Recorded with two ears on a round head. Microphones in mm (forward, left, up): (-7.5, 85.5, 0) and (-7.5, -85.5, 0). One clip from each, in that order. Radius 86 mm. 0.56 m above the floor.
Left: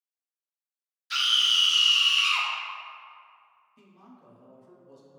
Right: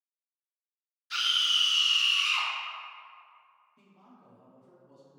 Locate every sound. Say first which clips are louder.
1.1 s a scream: left 4 dB; 20° left (ahead or behind), 0.7 m
3.8 s a man speaking: left 6 dB; 20° left (ahead or behind), 0.6 m